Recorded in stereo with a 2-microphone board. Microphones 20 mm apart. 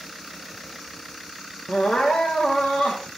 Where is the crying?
80° left, 6 m.